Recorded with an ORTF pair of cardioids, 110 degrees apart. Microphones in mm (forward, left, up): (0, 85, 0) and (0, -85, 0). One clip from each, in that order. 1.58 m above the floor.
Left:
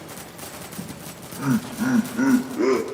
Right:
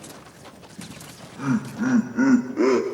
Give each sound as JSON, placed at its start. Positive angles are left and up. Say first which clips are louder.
{"t": 0.8, "sound": "laughter", "louder": "left 3 dB", "azimuth_deg": 35, "distance_m": 2.0}